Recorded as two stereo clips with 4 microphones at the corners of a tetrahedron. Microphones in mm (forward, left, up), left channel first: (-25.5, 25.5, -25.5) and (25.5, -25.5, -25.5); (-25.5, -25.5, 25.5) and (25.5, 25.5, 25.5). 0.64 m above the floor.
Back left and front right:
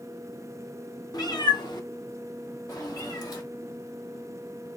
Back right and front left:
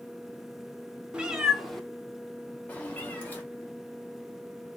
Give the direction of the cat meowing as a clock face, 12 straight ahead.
8 o'clock.